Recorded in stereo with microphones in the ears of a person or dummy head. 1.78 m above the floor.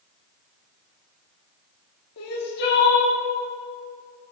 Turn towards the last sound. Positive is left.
turn(degrees=70)  # may be behind; listen again after turning